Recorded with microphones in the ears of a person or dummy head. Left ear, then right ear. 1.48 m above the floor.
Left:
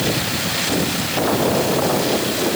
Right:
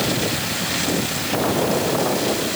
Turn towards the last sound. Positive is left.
No sound to turn to.